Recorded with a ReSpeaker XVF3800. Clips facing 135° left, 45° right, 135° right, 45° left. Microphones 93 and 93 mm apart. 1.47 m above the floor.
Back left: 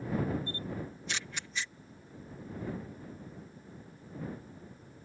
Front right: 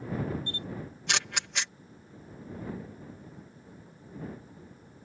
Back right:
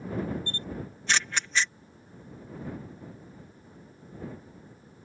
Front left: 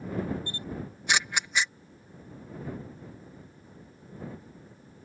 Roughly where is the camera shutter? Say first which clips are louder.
Even, even; ahead right.